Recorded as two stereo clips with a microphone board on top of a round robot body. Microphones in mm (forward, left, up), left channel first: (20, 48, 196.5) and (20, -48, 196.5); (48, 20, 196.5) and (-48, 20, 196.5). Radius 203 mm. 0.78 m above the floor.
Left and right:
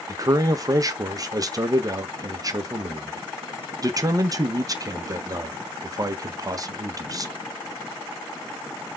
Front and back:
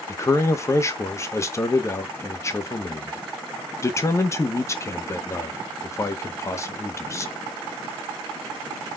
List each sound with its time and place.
0.1 s a man speaking: 50° right, 1.2 m